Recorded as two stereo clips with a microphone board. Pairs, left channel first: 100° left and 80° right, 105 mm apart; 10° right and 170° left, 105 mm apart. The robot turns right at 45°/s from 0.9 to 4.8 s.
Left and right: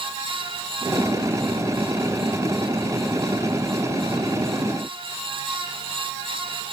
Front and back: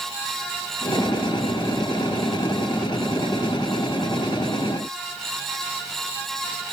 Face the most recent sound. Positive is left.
No sound to turn to.